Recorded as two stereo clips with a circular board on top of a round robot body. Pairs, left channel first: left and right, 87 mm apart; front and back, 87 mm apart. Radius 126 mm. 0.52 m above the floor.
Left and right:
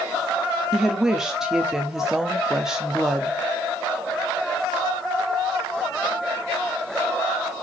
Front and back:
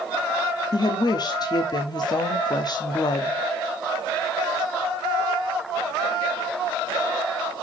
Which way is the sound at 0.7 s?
10° right.